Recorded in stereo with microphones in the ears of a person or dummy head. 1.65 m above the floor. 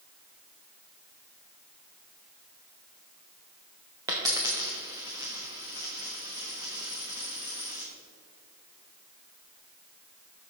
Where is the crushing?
I don't hear crushing.